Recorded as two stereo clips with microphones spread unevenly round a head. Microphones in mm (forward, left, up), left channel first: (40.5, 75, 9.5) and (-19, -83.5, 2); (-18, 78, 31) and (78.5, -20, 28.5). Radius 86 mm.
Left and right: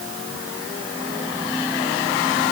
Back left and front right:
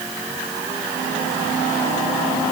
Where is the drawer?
I don't hear a drawer.